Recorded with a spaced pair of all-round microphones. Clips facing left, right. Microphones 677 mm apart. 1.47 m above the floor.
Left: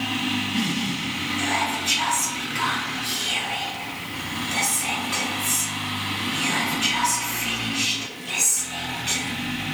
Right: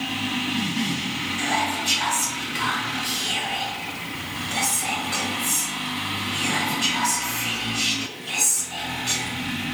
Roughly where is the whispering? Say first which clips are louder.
Right 1 dB; right.